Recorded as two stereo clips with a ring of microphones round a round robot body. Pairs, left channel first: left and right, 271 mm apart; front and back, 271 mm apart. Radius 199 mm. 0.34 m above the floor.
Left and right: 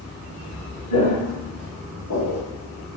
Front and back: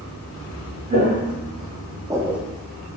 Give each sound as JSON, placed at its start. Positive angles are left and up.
{"t": 0.9, "sound": "footsteps", "azimuth_deg": 125, "distance_m": 1.7}